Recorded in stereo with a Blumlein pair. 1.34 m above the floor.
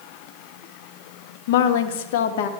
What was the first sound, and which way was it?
A woman speaking, 50° left.